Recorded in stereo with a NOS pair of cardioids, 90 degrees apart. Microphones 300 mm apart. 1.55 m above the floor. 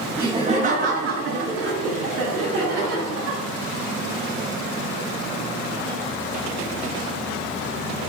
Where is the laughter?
10° right, 0.7 m; by 3.4 s 80° right, 1.8 m.